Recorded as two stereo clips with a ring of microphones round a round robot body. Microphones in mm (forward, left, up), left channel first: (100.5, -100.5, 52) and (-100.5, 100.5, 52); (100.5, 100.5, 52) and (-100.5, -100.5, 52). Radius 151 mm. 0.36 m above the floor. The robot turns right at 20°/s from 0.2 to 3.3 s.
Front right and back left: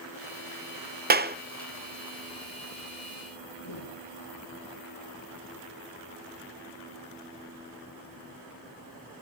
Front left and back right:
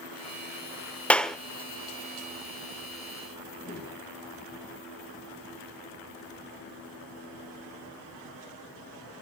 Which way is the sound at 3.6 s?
25° right.